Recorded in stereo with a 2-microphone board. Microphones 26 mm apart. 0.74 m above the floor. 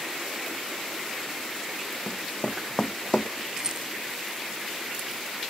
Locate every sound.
2.1 s running footsteps: 35° left (ahead or behind); by 3.3 s 40° left (ahead or behind)
3.6 s a rattle: 30° right (ahead or behind)